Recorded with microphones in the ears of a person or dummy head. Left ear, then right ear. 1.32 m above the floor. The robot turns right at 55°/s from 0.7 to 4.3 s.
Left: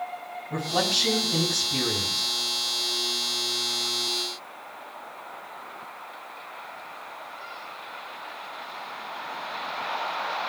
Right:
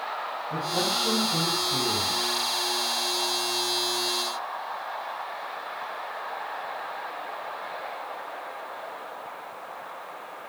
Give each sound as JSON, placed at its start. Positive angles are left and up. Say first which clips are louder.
{"t": 0.5, "sound": "a man speaking", "louder": "left 3 dB", "azimuth_deg": 90, "distance_m": 10.0}